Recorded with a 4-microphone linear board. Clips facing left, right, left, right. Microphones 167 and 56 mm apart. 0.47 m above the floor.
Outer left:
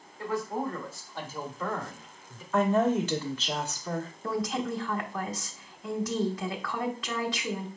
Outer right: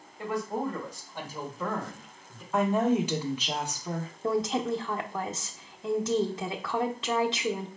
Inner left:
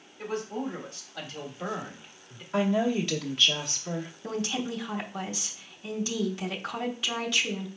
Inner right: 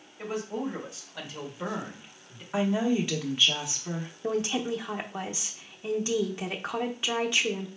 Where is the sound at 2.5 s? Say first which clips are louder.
Even, even; 10° right (ahead or behind), 0.9 m.